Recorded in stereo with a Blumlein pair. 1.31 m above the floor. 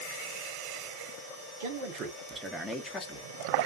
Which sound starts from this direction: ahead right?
A man speaking, at 1.6 s.